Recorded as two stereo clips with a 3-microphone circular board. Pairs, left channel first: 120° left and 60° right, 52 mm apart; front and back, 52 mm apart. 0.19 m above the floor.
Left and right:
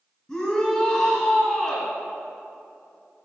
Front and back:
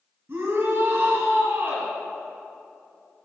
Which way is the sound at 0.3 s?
165° right.